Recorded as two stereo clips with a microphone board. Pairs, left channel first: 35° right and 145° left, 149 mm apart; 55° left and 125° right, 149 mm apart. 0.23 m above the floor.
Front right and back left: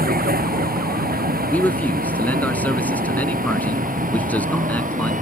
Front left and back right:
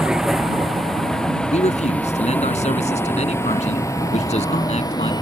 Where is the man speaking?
45° left.